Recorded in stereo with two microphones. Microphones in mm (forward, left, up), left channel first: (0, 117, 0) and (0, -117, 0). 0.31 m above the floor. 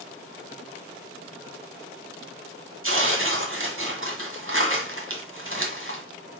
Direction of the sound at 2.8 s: 60° right (ahead or behind).